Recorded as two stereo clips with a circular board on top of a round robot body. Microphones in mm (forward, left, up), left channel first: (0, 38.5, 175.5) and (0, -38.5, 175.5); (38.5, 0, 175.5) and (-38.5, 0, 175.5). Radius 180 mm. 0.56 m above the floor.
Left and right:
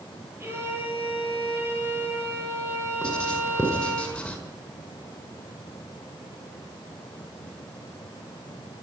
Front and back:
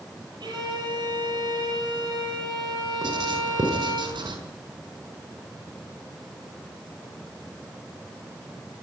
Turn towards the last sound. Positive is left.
turn(degrees=165)